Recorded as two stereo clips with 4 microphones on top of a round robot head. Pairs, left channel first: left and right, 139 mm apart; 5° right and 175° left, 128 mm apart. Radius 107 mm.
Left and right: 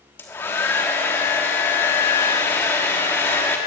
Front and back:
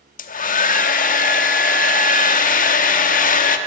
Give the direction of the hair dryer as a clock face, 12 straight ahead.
12 o'clock.